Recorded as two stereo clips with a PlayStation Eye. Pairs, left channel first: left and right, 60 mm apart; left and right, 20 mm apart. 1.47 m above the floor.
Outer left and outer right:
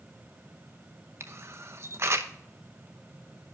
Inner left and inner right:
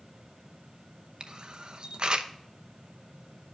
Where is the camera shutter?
45° right (ahead or behind), 0.8 m.